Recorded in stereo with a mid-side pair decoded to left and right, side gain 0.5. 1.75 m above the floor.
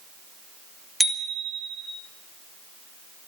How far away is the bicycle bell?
About 4 m.